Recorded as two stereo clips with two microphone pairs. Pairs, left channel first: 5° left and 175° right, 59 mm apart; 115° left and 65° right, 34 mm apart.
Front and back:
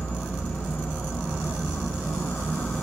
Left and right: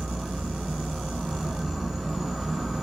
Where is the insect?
5° left, 1.3 m.